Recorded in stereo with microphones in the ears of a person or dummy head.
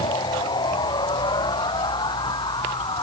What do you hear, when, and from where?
0.0 s a machine running: 25° left (ahead or behind)